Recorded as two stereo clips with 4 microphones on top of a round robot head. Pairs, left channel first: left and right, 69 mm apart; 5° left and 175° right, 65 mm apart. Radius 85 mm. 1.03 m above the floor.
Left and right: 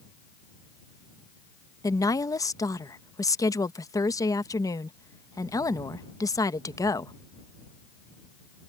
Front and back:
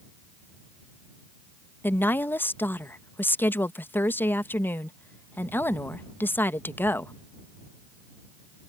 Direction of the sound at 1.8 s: 60° left.